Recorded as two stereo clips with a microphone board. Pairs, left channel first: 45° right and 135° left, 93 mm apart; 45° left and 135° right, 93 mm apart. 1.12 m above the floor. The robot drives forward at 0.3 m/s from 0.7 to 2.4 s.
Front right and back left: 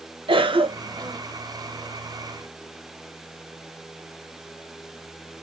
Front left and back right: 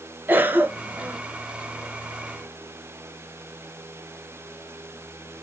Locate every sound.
0.3 s a cough: 155° left, 0.9 m; by 1.2 s 160° left, 1.1 m